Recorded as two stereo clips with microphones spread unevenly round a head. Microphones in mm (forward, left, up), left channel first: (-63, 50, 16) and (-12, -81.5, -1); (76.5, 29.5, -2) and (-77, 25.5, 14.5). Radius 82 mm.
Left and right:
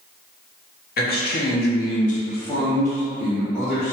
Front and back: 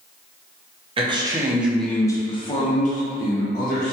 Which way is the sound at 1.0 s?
125° left.